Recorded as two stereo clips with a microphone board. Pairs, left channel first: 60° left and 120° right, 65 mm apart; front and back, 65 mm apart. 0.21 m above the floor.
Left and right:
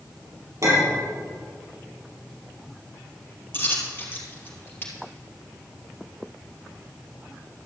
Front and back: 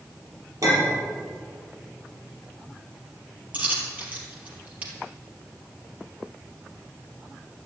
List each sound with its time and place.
0.6 s a clink: 155° right, 4 m
3.5 s a dropped coin: 115° left, 2.5 m